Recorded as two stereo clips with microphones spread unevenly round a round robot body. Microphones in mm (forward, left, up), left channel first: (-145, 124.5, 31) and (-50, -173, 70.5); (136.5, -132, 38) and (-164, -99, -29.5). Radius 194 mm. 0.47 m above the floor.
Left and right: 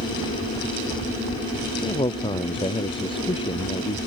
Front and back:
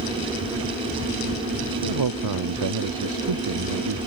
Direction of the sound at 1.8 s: Straight behind.